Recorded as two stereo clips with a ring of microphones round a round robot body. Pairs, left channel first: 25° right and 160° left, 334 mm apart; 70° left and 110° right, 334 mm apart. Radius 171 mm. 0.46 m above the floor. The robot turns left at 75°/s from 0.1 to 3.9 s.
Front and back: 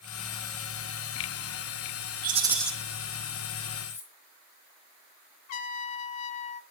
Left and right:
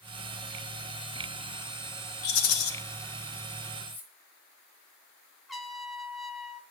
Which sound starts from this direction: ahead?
A trumpet, at 5.5 s.